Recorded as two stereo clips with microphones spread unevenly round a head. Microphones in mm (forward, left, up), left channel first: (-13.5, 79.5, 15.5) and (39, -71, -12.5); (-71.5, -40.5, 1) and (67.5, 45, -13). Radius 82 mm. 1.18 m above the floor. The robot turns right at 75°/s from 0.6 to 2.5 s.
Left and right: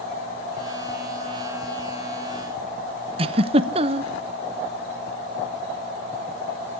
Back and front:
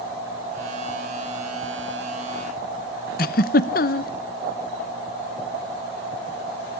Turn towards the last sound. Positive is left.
turn(degrees=-115)